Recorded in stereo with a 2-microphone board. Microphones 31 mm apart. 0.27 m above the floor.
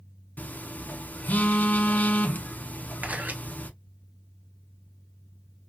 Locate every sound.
0.4 s a phone buzzing: 70° left (ahead or behind), 0.7 m
3.0 s a camera shutter: 60° right (ahead or behind), 0.9 m